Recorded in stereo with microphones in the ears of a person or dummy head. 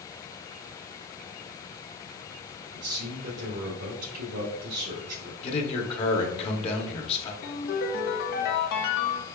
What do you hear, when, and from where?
2.7 s a man speaking: 65° right (ahead or behind), 1.7 m
5.4 s a man speaking: 35° left (ahead or behind), 1.0 m
7.4 s a ringtone: 55° left (ahead or behind), 0.9 m